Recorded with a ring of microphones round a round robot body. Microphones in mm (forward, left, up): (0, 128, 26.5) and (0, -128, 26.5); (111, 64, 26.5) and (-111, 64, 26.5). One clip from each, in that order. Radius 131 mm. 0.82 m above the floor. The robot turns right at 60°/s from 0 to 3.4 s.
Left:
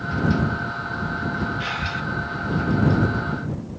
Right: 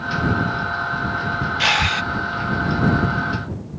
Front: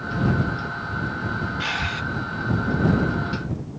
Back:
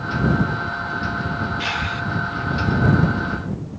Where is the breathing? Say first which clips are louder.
Right 9 dB, even; 95° right; by 2.0 s 70° right.